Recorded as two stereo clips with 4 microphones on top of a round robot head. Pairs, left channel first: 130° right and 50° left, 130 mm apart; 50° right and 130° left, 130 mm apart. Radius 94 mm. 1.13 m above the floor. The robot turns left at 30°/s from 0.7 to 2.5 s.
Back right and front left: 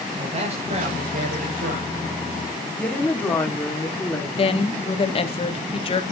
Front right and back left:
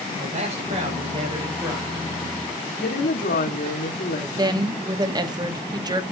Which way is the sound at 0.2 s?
90° left.